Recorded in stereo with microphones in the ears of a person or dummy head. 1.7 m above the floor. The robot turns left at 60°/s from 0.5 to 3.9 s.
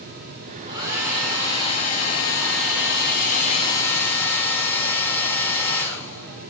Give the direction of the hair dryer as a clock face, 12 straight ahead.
5 o'clock.